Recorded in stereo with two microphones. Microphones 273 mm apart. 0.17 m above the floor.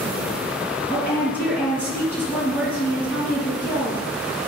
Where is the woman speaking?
10° right (ahead or behind), 2.0 m.